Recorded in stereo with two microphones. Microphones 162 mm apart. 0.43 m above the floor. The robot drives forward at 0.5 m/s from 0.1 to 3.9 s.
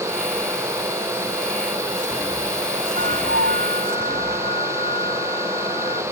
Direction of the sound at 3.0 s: 80° right.